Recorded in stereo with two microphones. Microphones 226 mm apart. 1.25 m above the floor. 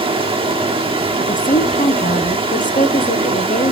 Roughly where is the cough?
No cough in this recording.